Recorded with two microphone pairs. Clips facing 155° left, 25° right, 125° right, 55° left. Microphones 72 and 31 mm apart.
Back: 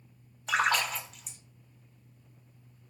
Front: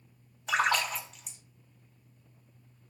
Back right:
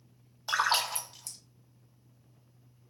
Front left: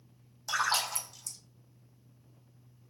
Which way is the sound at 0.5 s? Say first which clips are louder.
Even, back right 2 dB; 110° right.